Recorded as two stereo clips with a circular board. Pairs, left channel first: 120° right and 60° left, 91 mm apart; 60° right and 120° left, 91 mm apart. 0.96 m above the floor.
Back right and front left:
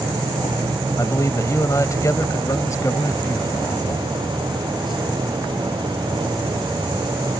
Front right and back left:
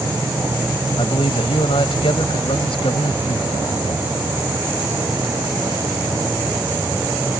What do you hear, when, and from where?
1.0 s a man speaking: 65° right